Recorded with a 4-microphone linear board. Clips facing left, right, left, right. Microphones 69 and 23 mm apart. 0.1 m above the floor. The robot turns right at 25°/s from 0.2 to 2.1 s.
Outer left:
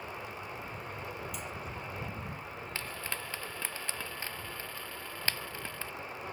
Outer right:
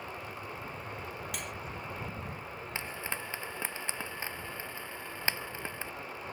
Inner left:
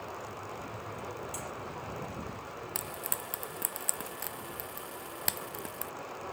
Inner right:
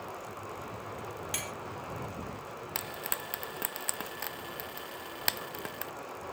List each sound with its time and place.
1.3 s cutlery clinking: 70° right (ahead or behind); by 1.5 s 75° right (ahead or behind)
2.8 s frying: 20° right (ahead or behind)